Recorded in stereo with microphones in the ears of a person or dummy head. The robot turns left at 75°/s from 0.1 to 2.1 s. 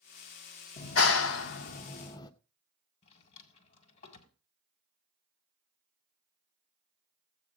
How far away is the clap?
About 0.8 m.